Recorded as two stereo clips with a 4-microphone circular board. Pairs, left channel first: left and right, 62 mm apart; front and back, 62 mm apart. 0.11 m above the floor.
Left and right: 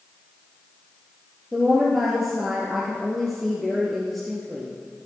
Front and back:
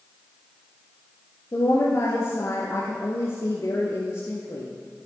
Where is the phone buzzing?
I don't hear a phone buzzing.